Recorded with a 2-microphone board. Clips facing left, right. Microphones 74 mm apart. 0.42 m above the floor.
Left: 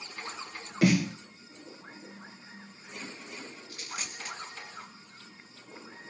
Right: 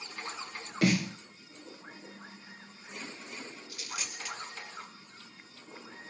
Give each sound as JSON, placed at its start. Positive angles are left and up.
{"t": 0.8, "sound": "a snare drum", "side_deg": 0, "distance_m": 0.9}
{"t": 3.7, "sound": "a dropped coin", "side_deg": 35, "distance_m": 1.6}